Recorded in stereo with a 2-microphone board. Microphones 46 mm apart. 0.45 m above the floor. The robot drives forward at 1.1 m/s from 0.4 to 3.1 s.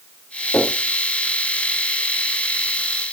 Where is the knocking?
85° left, 8 m.